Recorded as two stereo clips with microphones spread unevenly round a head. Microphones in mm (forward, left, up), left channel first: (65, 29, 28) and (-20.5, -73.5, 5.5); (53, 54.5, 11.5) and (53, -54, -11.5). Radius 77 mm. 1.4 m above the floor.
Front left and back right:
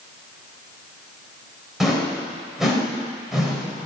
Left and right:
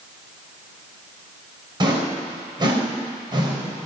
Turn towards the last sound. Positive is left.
turn(degrees=-40)